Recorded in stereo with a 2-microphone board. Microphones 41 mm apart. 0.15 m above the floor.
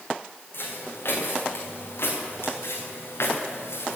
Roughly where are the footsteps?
Left.